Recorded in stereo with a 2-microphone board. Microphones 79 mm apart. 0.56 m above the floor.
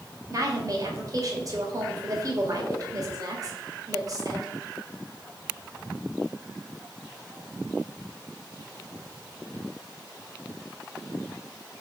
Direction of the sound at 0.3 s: 45° right (ahead or behind).